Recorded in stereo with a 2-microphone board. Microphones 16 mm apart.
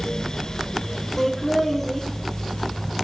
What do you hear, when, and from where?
1.2 s laughter: 15° left (ahead or behind), 4 m